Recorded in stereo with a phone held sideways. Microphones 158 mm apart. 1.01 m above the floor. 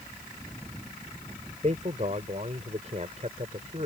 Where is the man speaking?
45° right (ahead or behind).